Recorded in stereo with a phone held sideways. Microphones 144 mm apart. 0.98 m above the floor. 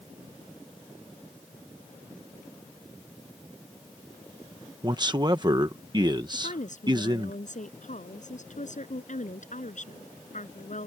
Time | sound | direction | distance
4.8 | a man speaking | 30° right (ahead or behind) | ?
6.3 | a woman speaking | 60° left (ahead or behind) | ?